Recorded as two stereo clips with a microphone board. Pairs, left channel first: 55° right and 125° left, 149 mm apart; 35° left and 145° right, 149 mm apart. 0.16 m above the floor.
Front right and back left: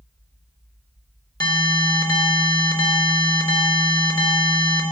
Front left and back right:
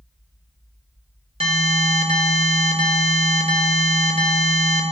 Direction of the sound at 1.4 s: 110° right.